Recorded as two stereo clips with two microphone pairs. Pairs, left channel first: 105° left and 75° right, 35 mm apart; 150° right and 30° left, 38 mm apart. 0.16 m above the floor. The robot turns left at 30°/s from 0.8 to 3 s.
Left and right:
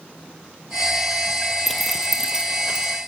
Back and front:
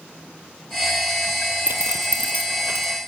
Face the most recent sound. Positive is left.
turn(degrees=-20)